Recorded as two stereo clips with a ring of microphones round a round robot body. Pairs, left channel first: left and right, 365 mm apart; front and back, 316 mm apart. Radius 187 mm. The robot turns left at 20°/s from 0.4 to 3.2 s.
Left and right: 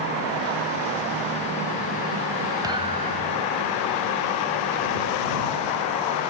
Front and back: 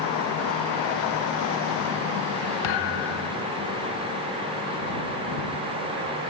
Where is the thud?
10° right; by 3.5 s 20° right.